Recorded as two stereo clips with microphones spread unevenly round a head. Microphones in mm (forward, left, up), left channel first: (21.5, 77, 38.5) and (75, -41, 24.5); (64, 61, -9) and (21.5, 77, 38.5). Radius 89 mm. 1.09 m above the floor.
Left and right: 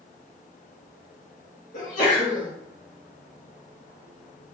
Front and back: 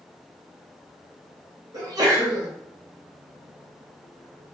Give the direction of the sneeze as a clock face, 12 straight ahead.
7 o'clock.